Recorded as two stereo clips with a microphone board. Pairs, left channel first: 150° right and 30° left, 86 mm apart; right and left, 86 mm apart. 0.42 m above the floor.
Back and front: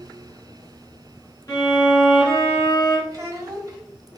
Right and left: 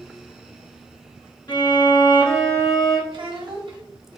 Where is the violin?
105° right, 1.6 m.